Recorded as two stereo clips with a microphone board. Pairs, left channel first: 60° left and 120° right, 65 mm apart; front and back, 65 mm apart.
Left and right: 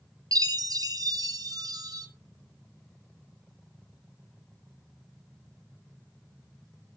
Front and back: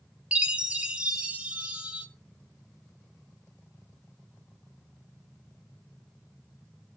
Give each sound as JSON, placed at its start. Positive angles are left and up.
{"t": 0.3, "sound": "a chime", "azimuth_deg": -105, "distance_m": 1.0}